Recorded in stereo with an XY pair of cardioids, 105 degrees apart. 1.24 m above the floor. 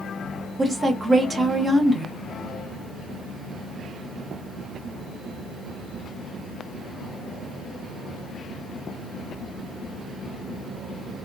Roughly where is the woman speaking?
Ahead right.